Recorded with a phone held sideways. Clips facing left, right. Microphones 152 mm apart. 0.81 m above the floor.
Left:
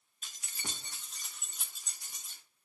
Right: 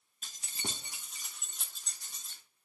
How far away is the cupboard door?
I don't hear a cupboard door.